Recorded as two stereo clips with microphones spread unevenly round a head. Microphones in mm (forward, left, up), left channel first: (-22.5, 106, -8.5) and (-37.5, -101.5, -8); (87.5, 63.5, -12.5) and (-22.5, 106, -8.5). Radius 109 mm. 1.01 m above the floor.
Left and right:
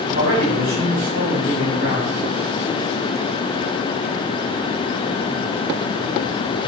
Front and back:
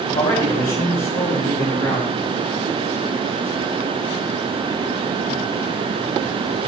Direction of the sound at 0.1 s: 50° right.